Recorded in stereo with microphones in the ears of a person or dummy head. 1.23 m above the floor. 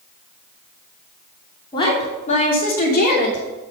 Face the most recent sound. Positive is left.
turn(degrees=60)  # may be behind; listen again after turning